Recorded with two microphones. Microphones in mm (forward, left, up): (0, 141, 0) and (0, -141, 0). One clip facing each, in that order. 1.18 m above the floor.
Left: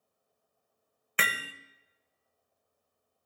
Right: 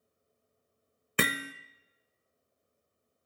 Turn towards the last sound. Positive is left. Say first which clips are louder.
# right 8 dB
turn(degrees=-50)  # may be behind; listen again after turning